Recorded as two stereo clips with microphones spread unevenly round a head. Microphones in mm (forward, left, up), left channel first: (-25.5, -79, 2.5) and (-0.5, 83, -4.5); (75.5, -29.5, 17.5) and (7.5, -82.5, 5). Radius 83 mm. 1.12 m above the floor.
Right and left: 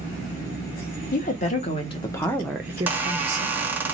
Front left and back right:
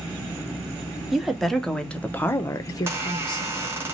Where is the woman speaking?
60° right, 1.1 m; by 3.7 s 75° left, 0.8 m.